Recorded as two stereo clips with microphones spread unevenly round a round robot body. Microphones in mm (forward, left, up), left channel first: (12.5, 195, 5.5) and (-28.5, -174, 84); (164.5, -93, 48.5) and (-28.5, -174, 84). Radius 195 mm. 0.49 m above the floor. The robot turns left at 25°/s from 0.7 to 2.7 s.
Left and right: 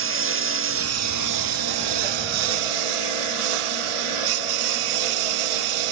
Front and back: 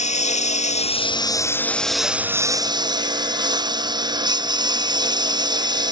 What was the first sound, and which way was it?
A lawn mower, 35° right.